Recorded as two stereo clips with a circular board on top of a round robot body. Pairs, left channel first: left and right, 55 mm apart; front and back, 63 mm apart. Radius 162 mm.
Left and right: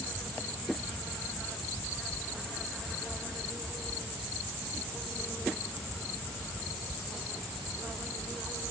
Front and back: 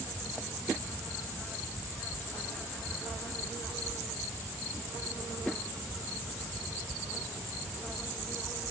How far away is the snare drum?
I don't hear a snare drum.